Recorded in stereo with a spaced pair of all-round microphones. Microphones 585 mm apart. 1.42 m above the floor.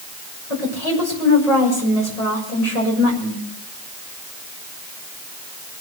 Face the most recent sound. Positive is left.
turn(degrees=80)